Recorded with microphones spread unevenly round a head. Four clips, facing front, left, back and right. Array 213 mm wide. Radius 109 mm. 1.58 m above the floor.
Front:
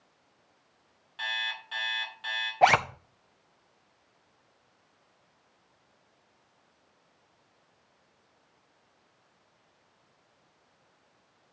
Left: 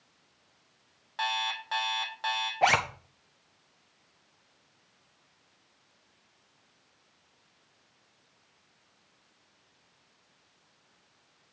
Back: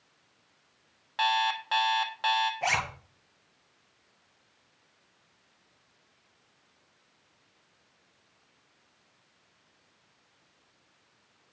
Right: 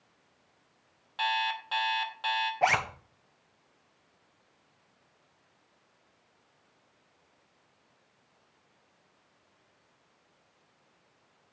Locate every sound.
1.2 s an alarm clock: straight behind, 1.3 m
2.6 s a zipper: 15° left, 0.8 m